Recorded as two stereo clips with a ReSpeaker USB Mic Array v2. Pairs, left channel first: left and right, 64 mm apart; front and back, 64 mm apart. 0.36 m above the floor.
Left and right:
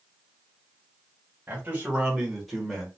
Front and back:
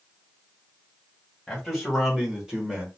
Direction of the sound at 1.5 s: 80° right.